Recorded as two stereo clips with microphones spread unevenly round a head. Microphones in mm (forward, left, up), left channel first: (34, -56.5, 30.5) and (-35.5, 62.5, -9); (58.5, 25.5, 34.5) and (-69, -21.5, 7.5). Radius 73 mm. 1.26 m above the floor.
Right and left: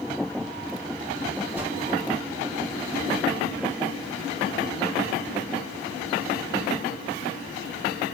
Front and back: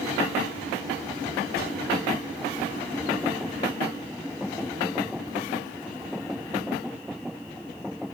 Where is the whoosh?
40° left, 7 m.